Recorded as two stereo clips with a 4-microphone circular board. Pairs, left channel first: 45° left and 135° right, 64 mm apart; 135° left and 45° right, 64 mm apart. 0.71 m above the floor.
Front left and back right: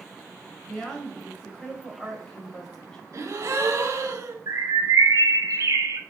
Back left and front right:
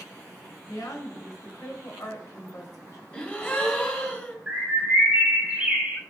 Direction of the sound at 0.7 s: 125° left.